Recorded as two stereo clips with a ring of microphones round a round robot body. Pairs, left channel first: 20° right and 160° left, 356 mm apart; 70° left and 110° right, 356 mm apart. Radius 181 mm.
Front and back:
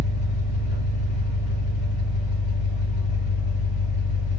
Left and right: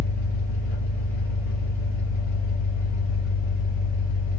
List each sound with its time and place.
0.0 s an engine running: 55° right, 2.5 m